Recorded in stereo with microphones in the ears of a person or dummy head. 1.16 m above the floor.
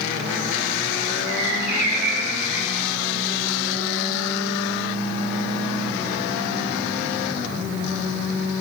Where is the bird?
10° right (ahead or behind), 2.5 m.